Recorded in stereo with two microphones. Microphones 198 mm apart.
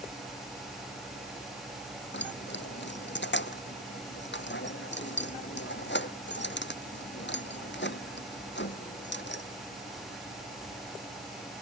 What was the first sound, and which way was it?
Keys jangling, 65° left (ahead or behind).